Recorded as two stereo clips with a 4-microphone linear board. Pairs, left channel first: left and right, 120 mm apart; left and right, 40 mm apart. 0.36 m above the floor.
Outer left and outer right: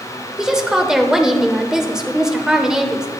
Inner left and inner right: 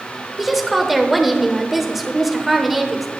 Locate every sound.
0.4 s a woman speaking: 5° right (ahead or behind), 0.8 m